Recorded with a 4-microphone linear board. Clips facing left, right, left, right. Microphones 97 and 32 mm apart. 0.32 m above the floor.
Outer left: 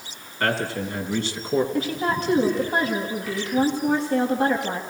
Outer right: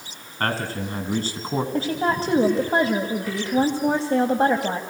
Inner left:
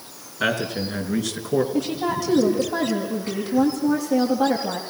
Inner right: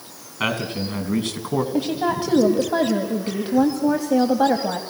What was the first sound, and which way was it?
A man speaking, 50° right (ahead or behind).